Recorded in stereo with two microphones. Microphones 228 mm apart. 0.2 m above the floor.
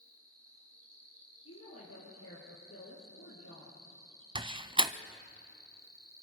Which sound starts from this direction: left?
A woman speaking, at 1.4 s.